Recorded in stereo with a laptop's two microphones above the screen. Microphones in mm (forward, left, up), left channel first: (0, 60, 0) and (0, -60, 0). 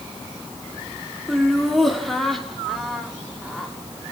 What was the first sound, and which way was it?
Laughter, centre (ahead or behind).